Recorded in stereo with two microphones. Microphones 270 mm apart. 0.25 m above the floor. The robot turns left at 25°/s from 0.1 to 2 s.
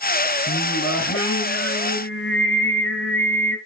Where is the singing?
105° left, 2 m; by 3.6 s 70° left, 2 m.